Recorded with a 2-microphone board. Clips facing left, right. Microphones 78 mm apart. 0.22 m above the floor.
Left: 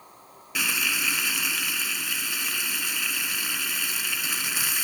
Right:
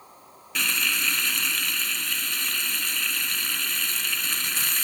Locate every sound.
0.6 s frying: 10° left (ahead or behind)